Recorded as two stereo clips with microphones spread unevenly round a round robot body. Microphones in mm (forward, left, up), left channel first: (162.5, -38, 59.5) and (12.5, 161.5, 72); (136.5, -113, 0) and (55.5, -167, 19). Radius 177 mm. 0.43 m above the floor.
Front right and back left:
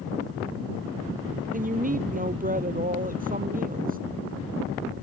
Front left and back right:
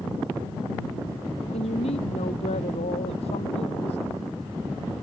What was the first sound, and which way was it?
A woman speaking, 70° left.